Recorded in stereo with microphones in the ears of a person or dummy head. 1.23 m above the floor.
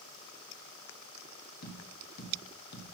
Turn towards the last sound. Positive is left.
turn(degrees=55)  # may be behind; listen again after turning